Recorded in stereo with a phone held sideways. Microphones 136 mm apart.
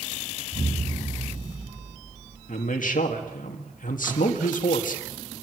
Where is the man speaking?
75° left (ahead or behind), 2.0 m.